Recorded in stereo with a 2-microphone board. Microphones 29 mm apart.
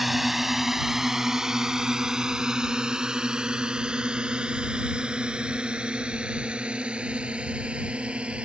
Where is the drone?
5° right (ahead or behind); by 8.4 s 40° right (ahead or behind).